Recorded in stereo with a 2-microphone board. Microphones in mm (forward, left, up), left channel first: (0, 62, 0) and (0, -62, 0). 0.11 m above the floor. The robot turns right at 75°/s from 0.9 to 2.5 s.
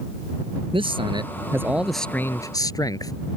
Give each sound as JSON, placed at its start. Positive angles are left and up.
{"t": 0.7, "sound": "a man speaking", "azimuth_deg": -75}